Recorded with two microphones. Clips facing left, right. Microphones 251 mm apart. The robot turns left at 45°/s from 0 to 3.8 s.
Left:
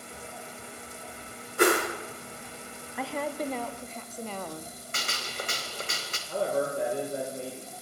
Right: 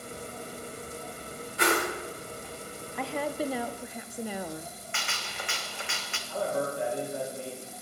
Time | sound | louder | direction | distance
1.6 | a whoosh | left 5 dB | 50° left (ahead or behind) | 1.3 m
3.0 | a woman speaking | right 1 dB | 5° left (ahead or behind) | 0.5 m
4.9 | a gunshot | left 5 dB | 40° left (ahead or behind) | 0.9 m
6.3 | a man speaking | left 2 dB | 55° left (ahead or behind) | 2 m